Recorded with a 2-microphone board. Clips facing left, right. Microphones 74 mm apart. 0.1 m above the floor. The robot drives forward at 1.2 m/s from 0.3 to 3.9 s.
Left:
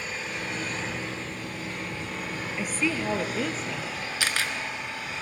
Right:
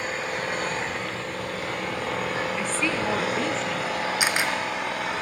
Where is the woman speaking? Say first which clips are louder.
Right 2 dB; 10° left (ahead or behind), 1.3 m; by 4.0 s 5° left (ahead or behind), 2.5 m.